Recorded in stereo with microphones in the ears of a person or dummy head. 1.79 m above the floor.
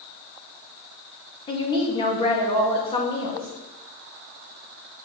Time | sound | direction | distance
1.5 | a woman speaking | 35° left (ahead or behind) | 2 m